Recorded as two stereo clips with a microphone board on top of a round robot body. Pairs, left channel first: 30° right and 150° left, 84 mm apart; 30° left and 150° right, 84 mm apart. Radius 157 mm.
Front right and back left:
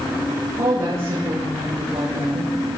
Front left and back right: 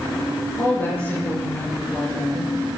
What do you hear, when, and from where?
0.6 s a woman speaking: 95° left, 8 m